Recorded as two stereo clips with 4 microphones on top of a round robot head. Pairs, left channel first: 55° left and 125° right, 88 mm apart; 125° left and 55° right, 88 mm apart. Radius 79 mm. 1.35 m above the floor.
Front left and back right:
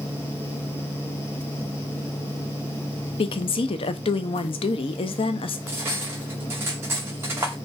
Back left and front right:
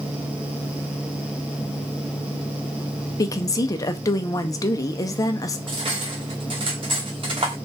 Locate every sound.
3.2 s a woman speaking: 75° left, 0.6 m
5.7 s cutlery clinking: 70° right, 0.7 m